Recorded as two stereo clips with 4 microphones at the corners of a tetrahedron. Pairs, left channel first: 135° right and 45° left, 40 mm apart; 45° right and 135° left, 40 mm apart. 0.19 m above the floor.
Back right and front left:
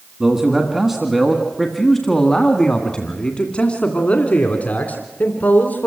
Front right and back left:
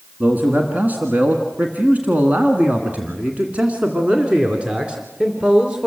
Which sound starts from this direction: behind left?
A man speaking, at 0.2 s.